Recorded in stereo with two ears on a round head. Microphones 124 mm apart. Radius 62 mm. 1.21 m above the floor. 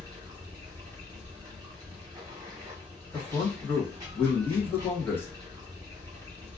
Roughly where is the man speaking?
Centre.